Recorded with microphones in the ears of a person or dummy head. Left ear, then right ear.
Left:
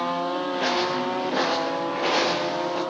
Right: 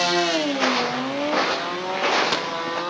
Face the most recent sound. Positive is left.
turn(degrees=-15)  # may be behind; listen again after turning